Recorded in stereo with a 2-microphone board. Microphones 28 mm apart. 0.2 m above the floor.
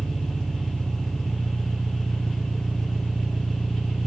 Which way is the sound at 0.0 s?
10° left (ahead or behind).